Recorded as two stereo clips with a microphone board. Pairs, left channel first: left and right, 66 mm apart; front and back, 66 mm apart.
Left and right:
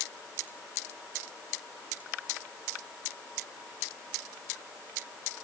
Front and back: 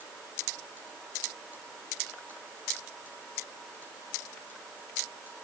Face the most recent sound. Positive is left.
No sound to turn to.